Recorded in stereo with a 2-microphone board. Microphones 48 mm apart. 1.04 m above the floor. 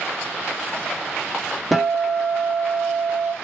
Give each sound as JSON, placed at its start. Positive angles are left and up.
{"t": 1.7, "sound": "a guitar", "side_deg": 0, "distance_m": 0.7}